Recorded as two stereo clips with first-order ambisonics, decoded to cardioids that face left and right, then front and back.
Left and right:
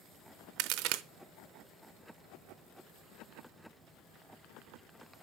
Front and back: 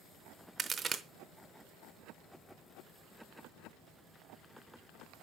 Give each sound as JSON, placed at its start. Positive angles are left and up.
{"t": 0.6, "sound": "a crack", "azimuth_deg": -110, "distance_m": 0.6}